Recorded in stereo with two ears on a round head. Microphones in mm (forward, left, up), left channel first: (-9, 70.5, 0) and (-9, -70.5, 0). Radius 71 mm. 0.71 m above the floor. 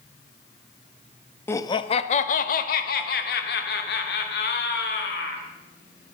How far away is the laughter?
About 0.6 m.